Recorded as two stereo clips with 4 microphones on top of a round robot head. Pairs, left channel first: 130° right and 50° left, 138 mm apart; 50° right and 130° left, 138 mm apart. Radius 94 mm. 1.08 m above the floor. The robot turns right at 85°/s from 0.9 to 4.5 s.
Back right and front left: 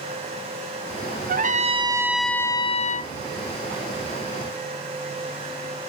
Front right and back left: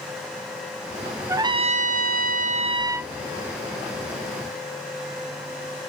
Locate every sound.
1.3 s a trumpet: 60° left, 0.7 m; by 3.1 s 145° right, 0.7 m